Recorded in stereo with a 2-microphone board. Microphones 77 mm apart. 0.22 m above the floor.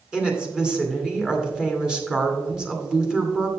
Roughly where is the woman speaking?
Centre.